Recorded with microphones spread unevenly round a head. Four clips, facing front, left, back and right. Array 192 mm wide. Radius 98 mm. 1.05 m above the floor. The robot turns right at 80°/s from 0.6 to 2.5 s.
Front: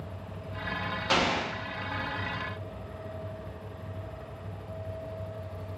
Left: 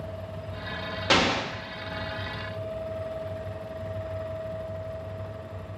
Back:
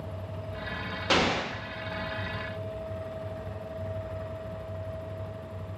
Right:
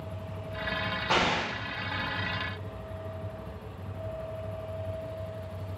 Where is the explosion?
95° left, 0.7 m; by 1.5 s 130° left, 0.7 m.